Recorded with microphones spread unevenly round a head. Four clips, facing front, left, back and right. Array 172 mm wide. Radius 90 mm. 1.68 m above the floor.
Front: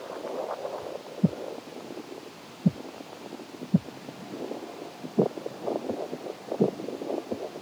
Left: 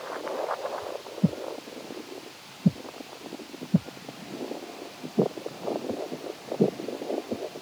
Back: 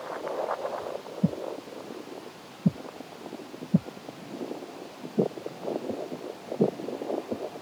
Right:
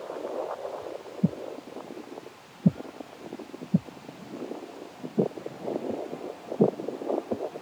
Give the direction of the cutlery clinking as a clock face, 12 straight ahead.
I don't hear cutlery clinking.